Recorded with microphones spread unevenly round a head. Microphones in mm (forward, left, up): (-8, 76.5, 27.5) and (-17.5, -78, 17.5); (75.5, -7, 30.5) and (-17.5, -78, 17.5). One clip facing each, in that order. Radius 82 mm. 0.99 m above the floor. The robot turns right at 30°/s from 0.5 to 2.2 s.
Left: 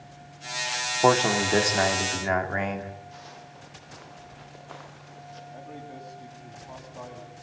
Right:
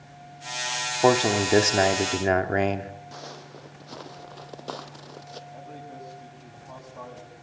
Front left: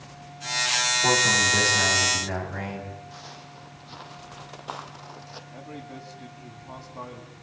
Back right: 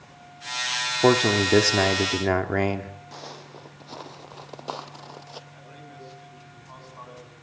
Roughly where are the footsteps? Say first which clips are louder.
Right 4 dB, back right 3 dB; behind right.